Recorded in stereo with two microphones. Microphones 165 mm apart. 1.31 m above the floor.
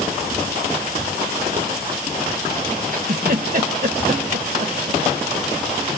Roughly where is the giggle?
Right.